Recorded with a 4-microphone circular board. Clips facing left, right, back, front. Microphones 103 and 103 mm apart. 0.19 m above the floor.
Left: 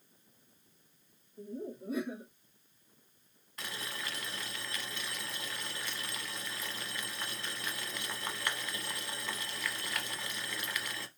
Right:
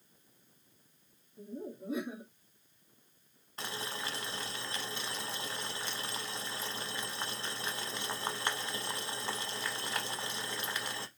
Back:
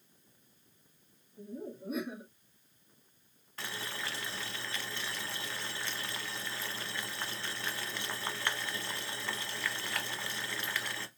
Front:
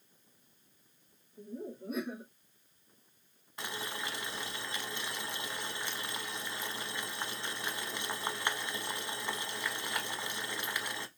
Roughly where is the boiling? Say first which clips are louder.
Right 2 dB, front 1 dB; ahead right.